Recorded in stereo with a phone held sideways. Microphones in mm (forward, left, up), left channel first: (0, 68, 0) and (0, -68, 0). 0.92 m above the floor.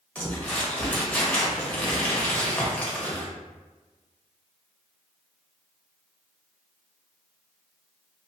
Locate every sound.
0.1 s crumpling: 10° left (ahead or behind), 0.9 m